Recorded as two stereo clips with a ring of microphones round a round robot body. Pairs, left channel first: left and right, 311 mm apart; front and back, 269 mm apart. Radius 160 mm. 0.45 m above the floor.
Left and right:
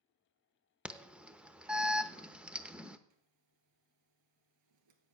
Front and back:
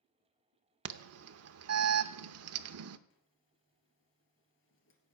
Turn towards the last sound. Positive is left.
turn(degrees=-55)